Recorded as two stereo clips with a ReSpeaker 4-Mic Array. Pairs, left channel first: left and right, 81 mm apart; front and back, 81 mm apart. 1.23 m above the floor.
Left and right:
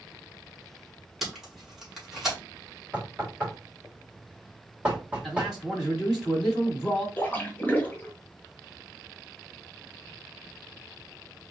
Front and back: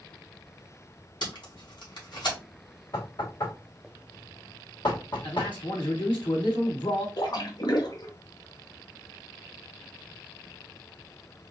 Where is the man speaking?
5° right, 2.5 m.